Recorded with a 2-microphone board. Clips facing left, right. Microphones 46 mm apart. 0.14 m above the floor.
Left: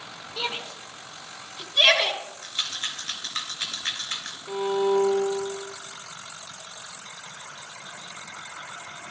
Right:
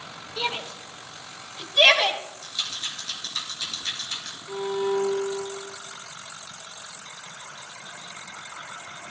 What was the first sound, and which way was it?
A shout, 5° left (ahead or behind).